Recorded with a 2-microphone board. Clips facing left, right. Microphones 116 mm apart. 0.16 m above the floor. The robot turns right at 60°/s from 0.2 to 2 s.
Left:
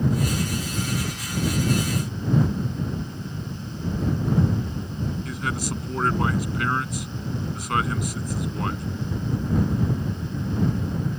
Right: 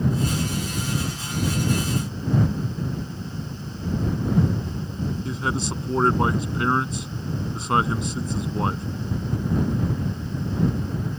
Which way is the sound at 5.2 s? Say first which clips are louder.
Right 2 dB; 25° right (ahead or behind).